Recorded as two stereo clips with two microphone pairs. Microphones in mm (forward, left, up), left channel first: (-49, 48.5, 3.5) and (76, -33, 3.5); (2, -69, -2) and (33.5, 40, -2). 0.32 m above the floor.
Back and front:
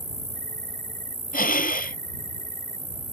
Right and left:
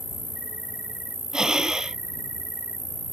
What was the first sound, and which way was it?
An insect, straight ahead.